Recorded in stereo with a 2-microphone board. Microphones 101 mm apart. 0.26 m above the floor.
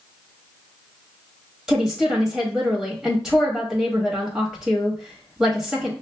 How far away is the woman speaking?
About 1.0 m.